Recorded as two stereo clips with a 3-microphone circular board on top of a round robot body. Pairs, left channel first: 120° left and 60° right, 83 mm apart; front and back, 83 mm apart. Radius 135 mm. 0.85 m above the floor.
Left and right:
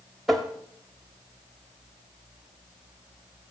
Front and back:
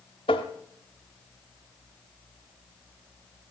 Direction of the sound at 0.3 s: 25° left.